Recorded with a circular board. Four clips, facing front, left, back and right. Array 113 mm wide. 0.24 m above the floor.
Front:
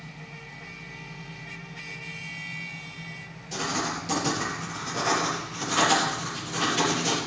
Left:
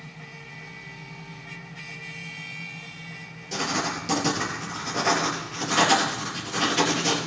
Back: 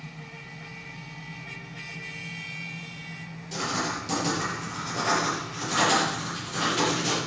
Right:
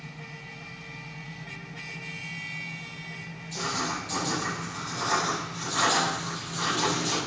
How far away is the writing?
About 4.5 m.